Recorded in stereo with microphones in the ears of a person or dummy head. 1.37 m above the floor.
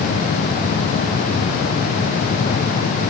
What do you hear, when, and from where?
Only background noise.